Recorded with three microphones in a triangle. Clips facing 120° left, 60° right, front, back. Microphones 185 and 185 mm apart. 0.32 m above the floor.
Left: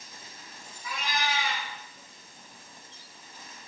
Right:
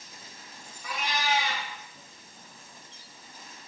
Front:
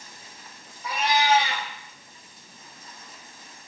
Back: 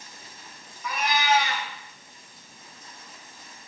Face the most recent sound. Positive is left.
turn(degrees=-60)